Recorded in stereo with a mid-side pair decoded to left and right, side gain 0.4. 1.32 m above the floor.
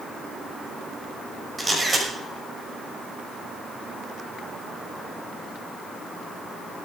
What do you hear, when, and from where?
1.6 s a camera shutter: 25° right, 6 m